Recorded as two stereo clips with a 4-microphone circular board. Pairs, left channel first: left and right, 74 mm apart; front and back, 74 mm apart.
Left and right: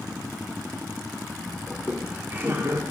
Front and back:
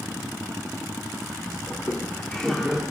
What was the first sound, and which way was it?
Laughter, 20° right.